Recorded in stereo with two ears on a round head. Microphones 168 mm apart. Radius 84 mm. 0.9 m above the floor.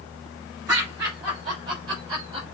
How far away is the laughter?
About 4 m.